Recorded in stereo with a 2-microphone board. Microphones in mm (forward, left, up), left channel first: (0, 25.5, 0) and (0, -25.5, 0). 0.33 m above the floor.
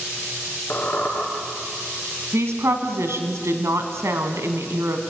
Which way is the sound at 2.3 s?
60° right (ahead or behind).